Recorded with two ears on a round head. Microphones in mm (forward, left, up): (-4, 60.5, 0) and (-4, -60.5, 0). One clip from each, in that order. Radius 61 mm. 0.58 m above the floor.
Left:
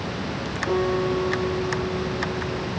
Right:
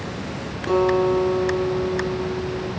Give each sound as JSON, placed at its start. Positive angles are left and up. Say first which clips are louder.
{"t": 0.7, "sound": "a guitar", "louder": "right 6 dB", "side_deg": -65, "distance_m": 10.0}